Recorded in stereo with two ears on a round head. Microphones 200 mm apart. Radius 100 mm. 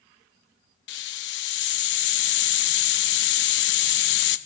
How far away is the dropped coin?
No dropped coin in this recording.